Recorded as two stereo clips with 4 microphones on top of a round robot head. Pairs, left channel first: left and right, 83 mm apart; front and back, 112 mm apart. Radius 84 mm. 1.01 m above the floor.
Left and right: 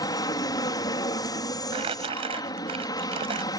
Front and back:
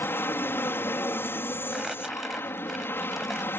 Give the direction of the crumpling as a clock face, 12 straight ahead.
3 o'clock.